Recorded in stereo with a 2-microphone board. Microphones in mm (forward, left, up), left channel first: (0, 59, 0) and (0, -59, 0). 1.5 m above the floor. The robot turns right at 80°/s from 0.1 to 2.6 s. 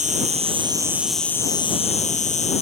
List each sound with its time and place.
0.0 s an insect: 85° right; by 2.6 s 115° left